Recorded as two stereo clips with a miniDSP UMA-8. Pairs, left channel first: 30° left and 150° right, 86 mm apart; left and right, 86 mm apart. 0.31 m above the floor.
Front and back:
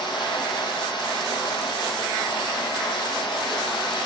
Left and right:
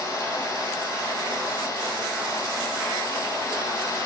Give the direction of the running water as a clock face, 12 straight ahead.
11 o'clock.